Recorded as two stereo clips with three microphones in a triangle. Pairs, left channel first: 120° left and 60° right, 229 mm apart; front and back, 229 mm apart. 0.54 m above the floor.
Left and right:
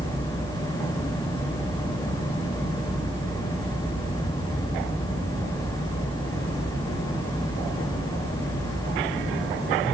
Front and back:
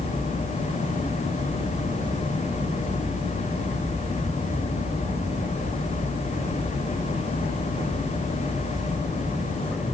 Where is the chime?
No chime in this recording.